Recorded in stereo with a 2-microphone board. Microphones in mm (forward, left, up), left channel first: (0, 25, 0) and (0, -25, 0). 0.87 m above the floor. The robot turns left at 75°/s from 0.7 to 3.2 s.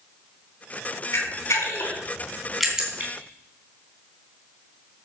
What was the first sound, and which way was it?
A camera shutter, 70° left (ahead or behind).